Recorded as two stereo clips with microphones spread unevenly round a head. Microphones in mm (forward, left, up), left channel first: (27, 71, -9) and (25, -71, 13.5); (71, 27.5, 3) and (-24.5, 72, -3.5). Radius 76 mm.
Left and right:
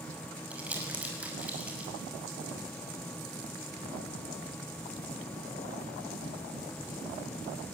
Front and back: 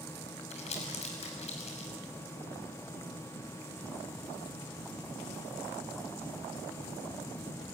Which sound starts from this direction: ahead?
Crumpling, at 0.5 s.